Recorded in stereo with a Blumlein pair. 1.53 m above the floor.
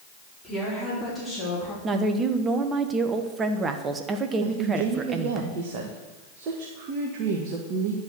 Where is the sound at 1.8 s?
20° right, 1.1 m.